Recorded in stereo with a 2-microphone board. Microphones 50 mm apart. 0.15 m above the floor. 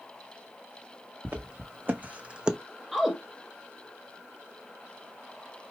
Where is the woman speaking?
5° right (ahead or behind), 1.5 m.